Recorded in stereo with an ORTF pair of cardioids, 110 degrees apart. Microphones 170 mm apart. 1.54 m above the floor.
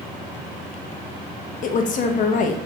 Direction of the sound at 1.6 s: 50° left.